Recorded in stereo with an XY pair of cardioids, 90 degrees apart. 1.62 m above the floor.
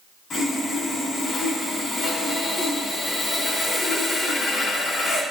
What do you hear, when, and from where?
0.3 s sawing: 60° left, 2.5 m